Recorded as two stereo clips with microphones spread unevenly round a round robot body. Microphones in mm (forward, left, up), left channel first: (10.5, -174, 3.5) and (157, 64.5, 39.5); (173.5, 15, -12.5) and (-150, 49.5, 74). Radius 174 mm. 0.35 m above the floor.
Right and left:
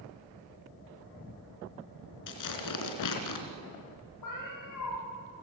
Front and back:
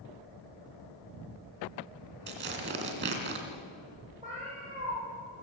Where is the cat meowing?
115° right, 6.5 m.